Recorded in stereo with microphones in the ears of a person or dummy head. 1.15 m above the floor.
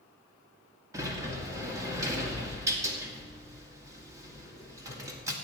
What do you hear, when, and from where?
0.9 s a sliding door: 20° right (ahead or behind), 2 m